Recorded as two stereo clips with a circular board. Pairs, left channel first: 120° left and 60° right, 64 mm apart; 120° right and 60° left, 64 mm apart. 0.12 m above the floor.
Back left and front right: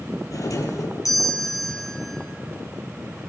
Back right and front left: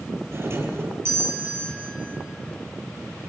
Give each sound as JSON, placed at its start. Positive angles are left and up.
{"t": 0.3, "sound": "a doorbell", "azimuth_deg": 105, "distance_m": 3.5}